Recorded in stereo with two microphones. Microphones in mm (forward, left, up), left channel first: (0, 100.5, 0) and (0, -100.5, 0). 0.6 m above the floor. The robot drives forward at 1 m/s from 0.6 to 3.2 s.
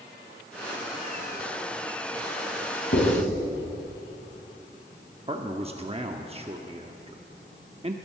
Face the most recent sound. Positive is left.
turn(degrees=-30)  # may be behind; listen again after turning